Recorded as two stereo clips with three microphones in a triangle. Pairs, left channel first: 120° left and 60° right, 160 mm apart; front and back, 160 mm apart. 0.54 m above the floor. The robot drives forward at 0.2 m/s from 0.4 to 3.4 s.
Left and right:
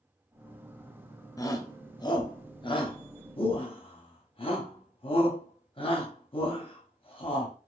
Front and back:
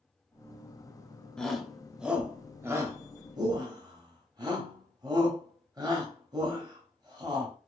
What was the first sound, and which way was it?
A shout, 80° left.